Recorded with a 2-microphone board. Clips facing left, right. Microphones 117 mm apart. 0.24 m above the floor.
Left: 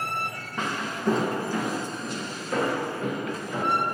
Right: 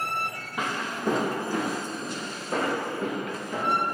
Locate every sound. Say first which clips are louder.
0.6 s footsteps: even; 10° right (ahead or behind), 0.5 m; by 3.9 s 30° right (ahead or behind), 2.5 m